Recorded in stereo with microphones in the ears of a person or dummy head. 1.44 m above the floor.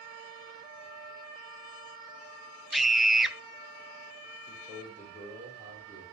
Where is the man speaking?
15° right (ahead or behind), 4.5 m.